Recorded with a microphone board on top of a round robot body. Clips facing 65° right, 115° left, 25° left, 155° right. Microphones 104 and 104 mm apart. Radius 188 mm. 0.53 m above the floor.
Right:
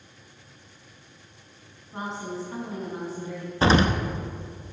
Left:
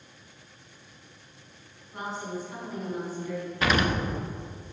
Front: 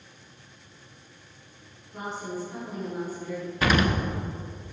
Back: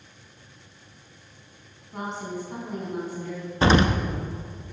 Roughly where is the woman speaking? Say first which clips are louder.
Right 2 dB, back 2 dB; behind right.